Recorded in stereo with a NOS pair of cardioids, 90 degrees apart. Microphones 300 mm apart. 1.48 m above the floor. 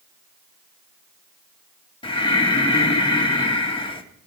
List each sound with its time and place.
2.0 s breathing: 15° left, 1.7 m